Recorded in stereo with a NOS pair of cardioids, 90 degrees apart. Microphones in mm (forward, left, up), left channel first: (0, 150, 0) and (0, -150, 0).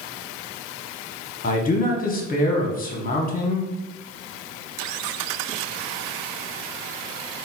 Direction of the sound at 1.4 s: 30° left.